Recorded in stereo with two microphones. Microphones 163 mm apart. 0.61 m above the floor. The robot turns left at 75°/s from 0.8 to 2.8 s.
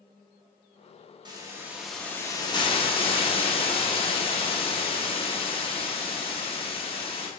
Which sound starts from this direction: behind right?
A hiss, at 1.2 s.